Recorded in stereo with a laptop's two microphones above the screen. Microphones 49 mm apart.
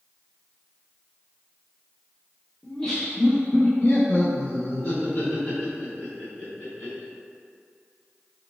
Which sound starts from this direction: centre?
Laughter, at 2.6 s.